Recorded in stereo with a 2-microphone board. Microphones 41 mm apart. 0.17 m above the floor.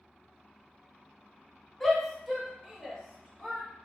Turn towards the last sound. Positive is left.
turn(degrees=-15)  # may be behind; listen again after turning